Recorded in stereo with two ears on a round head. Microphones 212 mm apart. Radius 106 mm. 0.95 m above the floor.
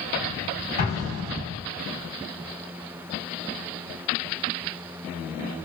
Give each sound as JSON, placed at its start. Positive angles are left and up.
{"t": 0.8, "sound": "an explosion", "side_deg": 40, "distance_m": 1.1}